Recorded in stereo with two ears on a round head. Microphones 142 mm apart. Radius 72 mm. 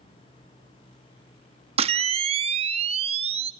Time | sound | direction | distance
1.8 | a camera shutter | 40° right (ahead or behind) | 0.8 m